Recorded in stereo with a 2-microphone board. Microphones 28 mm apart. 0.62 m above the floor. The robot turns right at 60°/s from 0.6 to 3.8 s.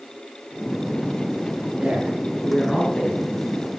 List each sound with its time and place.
1.8 s a man speaking: 35° right, 8 m; by 3.2 s 50° left, 8 m